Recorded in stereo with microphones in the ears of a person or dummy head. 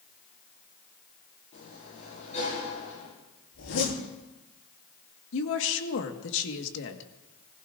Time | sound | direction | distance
1.5 | a sliding door | 40° left (ahead or behind) | 7 m
3.5 | a zipper | 85° left | 8 m
5.3 | a woman speaking | 70° left (ahead or behind) | 1.8 m